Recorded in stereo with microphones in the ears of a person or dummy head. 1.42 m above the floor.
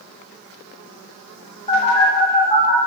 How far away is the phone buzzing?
About 3 m.